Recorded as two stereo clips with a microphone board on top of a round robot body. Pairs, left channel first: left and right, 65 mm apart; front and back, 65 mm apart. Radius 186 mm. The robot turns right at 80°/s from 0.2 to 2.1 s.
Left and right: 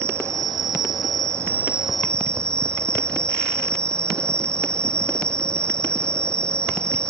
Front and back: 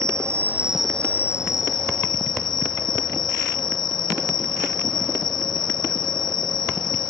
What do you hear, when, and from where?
0.0 s an insect: 140° right; by 7.1 s 15° left